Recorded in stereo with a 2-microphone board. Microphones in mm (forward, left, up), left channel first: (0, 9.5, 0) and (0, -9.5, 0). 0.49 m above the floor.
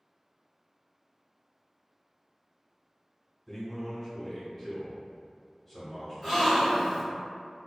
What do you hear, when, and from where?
3.5 s a man speaking: 10° left (ahead or behind), 1.2 m
6.2 s a gasp: 5° left (ahead or behind), 1.4 m